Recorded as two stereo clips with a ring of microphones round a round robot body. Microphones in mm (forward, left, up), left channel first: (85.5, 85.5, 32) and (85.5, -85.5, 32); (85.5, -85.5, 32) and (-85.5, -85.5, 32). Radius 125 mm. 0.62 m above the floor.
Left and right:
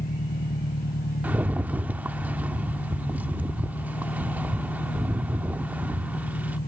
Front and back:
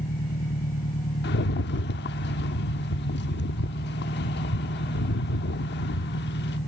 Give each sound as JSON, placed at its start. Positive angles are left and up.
{"t": 0.0, "sound": "an engine running", "azimuth_deg": 55}
{"t": 1.2, "sound": "a rattle", "azimuth_deg": -10}